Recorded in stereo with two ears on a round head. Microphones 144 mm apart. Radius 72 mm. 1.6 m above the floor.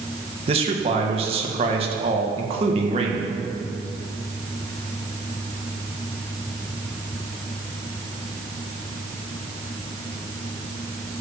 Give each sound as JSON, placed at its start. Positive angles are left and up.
{"t": 0.5, "sound": "a man speaking", "side_deg": -35, "distance_m": 1.8}